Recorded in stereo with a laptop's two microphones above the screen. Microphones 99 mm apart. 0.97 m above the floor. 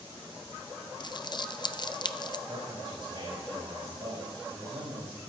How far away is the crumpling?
About 0.5 m.